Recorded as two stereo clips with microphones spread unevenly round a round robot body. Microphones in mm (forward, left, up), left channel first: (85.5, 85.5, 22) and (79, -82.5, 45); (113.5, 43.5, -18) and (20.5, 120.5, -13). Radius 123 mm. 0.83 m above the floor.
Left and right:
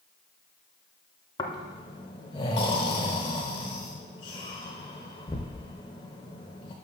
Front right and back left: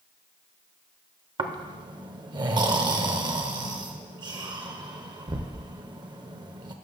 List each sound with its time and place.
1.4 s snoring: 155° left, 0.6 m